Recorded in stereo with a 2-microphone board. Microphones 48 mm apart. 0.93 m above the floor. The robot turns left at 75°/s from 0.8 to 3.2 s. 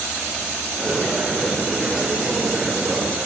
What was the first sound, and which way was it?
Only background noise.